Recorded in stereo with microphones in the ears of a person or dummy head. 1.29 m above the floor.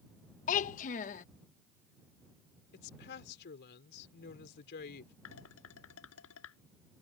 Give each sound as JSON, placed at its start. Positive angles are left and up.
{"t": 0.5, "sound": "a child speaking", "side_deg": 40}
{"t": 2.7, "sound": "a woman speaking", "side_deg": 60}
{"t": 5.2, "sound": "dishes clattering", "side_deg": 85}